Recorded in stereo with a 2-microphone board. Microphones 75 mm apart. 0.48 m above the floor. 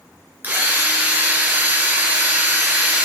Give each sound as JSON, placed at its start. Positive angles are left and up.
{"t": 0.4, "sound": "a drill", "side_deg": -25, "distance_m": 2.5}